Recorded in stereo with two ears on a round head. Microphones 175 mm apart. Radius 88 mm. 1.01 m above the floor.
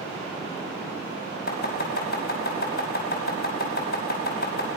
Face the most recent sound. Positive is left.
turn(degrees=50)  # may be behind; listen again after turning